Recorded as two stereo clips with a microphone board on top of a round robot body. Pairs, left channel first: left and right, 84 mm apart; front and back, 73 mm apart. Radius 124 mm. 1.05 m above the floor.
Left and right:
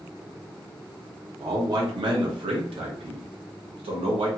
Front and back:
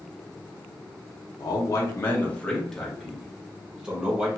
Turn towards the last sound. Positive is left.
turn(degrees=-105)